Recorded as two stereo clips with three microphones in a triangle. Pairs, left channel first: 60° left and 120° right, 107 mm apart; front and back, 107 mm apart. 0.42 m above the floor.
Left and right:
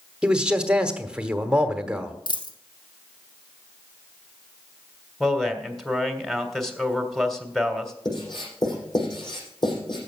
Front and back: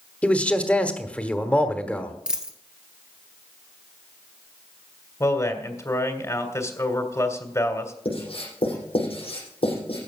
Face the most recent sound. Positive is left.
turn(degrees=20)